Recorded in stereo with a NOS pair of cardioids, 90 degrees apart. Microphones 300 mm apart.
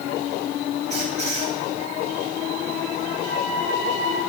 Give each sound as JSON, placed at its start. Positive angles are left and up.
{"t": 0.9, "sound": "a squeak", "azimuth_deg": -25, "distance_m": 7.0}
{"t": 3.2, "sound": "a flute", "azimuth_deg": -55, "distance_m": 3.5}